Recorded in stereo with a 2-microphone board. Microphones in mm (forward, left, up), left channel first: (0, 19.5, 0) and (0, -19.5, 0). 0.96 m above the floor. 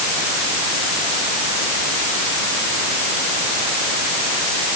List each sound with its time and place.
Only background noise.